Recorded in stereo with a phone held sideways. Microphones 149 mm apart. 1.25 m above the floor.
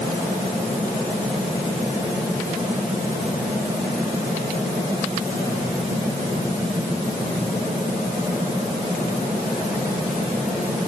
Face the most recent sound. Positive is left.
No sound to turn to.